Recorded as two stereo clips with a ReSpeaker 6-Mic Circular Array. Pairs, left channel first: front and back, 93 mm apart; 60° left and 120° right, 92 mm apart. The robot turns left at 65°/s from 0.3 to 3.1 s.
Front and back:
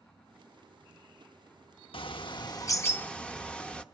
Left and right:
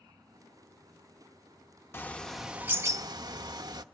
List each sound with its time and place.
1.9 s a bird: 5° right, 0.9 m; by 3.8 s 80° right, 0.9 m